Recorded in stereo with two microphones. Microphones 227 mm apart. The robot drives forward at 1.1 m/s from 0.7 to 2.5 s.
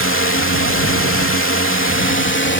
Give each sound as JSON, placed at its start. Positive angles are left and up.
{"t": 0.0, "sound": "a drone", "side_deg": 65}